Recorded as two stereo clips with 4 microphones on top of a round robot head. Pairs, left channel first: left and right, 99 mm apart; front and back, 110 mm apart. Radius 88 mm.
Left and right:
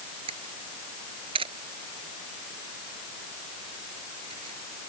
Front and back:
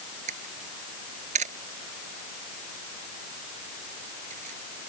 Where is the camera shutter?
140° right.